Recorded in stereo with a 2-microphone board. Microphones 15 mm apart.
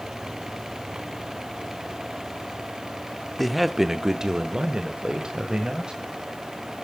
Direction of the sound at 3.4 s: Centre (ahead or behind).